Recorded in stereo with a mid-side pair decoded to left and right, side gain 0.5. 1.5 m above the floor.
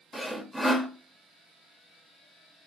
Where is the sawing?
Straight ahead, 0.6 m.